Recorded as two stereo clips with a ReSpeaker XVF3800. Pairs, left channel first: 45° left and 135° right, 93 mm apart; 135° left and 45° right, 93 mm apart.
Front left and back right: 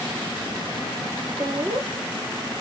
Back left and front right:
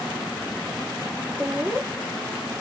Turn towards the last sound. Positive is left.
turn(degrees=-120)